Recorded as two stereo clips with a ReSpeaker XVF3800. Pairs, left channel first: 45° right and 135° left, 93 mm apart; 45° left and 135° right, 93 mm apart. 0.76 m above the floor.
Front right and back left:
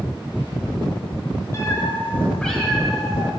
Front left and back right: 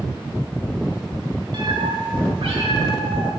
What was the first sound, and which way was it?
A cat meowing, 100° right.